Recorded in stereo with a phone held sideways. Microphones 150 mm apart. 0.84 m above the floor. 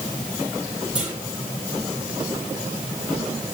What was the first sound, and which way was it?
A clunk, 5° right (ahead or behind).